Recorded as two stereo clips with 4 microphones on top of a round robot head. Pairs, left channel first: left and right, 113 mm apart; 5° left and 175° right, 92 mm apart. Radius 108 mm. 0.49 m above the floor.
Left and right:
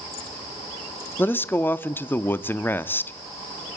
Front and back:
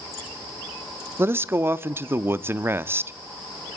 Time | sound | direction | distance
1.2 | a man speaking | 145° left | 0.8 m